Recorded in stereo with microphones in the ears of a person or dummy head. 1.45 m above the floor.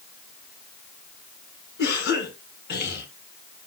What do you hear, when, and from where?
1.8 s a cough: 65° left (ahead or behind), 5.5 m